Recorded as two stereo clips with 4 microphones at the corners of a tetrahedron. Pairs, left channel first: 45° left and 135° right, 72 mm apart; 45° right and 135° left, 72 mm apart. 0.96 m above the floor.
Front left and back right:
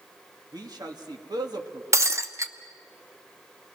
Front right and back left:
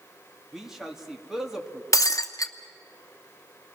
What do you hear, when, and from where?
0.5 s a man speaking: 140° right, 2 m
1.9 s breaking glass: 90° right, 1.0 m